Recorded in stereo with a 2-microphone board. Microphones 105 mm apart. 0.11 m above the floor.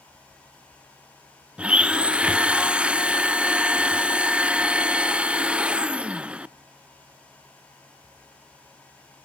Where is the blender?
10° right (ahead or behind), 0.5 m.